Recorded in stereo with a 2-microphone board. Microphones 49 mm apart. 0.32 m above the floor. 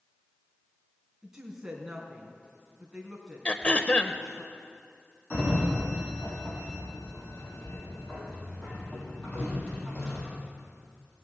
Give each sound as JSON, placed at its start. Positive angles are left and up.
{"t": 1.2, "sound": "a woman speaking", "side_deg": -10, "distance_m": 3.5}
{"t": 3.5, "sound": "throat clearing", "side_deg": 25, "distance_m": 0.7}
{"t": 5.3, "sound": "a sliding door", "side_deg": 25, "distance_m": 5.0}